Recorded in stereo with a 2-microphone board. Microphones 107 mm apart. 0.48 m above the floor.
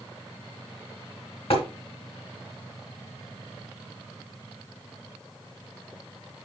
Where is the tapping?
65° left (ahead or behind), 2.5 m.